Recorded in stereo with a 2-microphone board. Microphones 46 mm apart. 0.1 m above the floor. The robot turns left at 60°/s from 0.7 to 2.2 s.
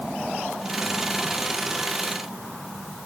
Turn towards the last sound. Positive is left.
No sound to turn to.